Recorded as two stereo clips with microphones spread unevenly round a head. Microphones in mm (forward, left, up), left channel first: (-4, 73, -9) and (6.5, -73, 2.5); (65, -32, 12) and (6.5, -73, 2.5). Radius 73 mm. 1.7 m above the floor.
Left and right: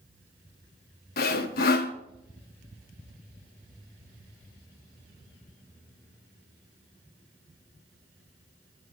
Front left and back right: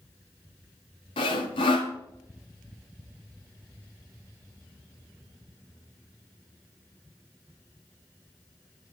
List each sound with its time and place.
1.2 s sawing: 65° left, 1.1 m